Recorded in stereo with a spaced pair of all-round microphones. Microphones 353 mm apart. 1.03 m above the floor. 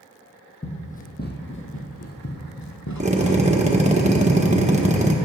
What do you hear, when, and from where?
0.6 s running footsteps: 15° left (ahead or behind), 1.7 m; by 4.0 s 50° left (ahead or behind), 2 m
3.0 s a drill: 20° right (ahead or behind), 1.2 m